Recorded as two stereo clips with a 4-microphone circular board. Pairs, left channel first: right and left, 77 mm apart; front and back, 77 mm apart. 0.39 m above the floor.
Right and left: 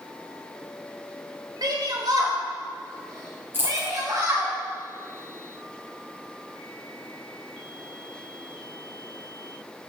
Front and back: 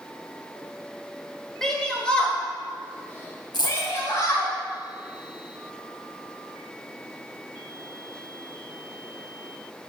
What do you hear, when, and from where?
1.6 s a shout: 85° left, 1.9 m; by 4.5 s 45° left, 2.5 m
3.5 s a dropped coin: 30° left, 2.5 m